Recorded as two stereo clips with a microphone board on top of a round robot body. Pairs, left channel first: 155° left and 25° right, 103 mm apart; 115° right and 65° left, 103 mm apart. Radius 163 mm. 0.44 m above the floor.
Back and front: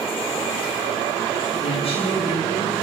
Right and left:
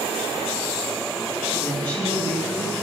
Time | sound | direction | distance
1.6 | a woman speaking | 170° left | 6.5 m